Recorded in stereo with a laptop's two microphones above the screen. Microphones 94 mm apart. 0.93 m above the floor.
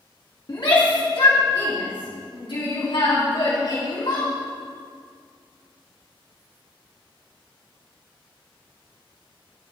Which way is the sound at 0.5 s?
55° left (ahead or behind).